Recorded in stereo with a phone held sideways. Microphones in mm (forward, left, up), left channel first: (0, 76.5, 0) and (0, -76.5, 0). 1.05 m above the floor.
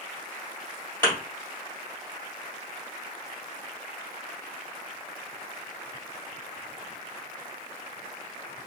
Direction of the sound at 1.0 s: 15° left (ahead or behind).